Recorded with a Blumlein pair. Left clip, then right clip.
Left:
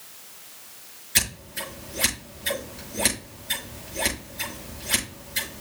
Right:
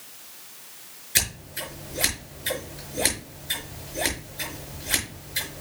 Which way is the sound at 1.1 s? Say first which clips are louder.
Left 1 dB; straight ahead.